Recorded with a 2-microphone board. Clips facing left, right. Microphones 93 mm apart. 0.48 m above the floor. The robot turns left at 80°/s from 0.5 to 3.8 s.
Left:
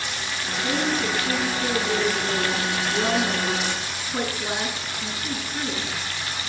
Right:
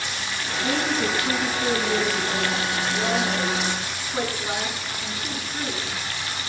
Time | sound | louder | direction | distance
0.6 | a woman speaking | even | 110° right | 7.5 m